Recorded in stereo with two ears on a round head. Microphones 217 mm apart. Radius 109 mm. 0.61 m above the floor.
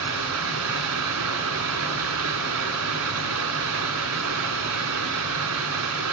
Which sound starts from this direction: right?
Running water, at 0.0 s.